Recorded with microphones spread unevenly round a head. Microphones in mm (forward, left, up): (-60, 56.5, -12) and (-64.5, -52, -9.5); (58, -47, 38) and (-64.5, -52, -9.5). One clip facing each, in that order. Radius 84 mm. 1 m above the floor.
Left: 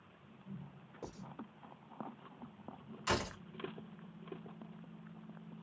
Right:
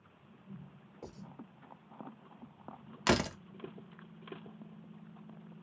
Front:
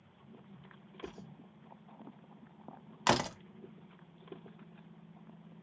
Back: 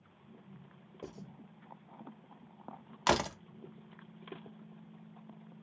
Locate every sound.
1.0 s writing: 170° left, 1.4 m
3.1 s a door slam: 95° right, 0.5 m